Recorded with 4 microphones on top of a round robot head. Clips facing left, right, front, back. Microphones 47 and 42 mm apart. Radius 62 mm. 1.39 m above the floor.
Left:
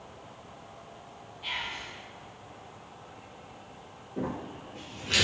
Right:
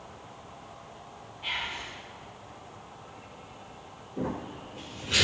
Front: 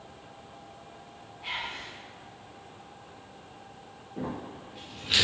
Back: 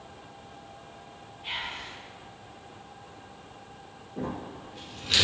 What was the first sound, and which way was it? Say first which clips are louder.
Whispering: right 2 dB, even; 15° right.